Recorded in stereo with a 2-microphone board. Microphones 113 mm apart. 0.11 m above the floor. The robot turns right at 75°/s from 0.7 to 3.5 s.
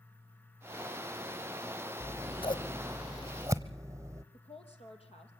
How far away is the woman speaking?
About 3.5 m.